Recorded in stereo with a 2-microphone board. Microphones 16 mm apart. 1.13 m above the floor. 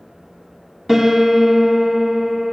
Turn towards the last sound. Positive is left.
turn(degrees=-10)  # may be behind; listen again after turning